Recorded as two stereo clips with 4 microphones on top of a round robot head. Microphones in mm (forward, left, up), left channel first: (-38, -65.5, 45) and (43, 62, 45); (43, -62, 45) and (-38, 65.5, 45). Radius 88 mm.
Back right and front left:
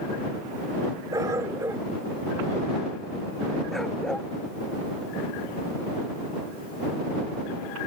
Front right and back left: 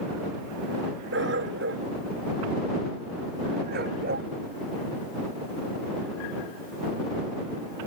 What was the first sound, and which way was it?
A dog barking, 130° left.